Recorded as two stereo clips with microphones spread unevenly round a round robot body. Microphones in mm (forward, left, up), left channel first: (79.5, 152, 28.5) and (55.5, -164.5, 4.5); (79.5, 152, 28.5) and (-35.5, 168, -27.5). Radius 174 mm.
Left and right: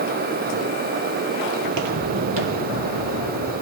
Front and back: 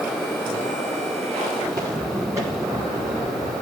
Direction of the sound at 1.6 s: 100° right.